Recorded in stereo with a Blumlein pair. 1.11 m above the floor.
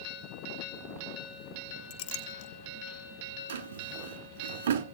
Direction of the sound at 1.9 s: 50° left.